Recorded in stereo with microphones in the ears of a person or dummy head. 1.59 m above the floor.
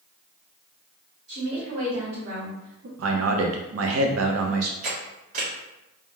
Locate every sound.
1.3 s a woman speaking: 85° right, 1.7 m; by 2.9 s 70° right (ahead or behind), 0.7 m
3.0 s a man speaking: 75° right (ahead or behind), 0.5 m
4.8 s a camera shutter: 55° right (ahead or behind), 1.4 m